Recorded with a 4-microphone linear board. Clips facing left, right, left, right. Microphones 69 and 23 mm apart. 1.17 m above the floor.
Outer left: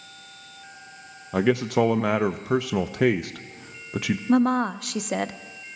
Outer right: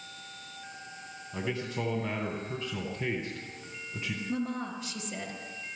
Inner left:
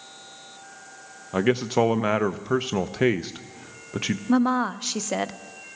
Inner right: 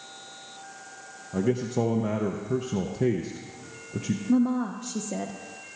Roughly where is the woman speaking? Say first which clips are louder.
Outer left 14 dB, inner left 3 dB; left.